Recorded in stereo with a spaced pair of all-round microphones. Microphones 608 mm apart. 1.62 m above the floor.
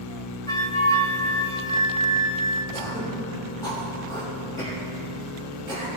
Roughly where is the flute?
Centre.